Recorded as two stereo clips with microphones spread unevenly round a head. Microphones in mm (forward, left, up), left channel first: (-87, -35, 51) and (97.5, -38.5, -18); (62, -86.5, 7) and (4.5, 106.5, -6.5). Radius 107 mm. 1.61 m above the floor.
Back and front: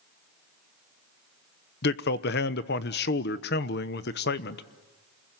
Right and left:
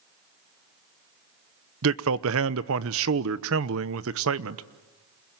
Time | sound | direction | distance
1.8 | a man speaking | 140° left | 0.9 m